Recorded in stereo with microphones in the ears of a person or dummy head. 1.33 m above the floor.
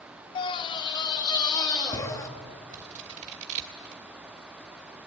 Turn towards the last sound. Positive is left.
turn(degrees=-40)  # may be behind; listen again after turning